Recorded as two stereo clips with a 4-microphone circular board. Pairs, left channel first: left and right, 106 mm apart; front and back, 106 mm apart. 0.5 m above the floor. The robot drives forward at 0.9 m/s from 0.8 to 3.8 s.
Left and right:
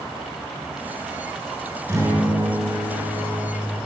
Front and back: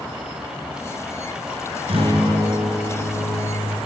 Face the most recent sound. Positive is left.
turn(degrees=-155)